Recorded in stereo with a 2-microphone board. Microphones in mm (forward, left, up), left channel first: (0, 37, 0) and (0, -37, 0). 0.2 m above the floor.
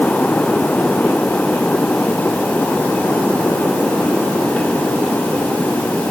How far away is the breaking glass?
No breaking glass in this recording.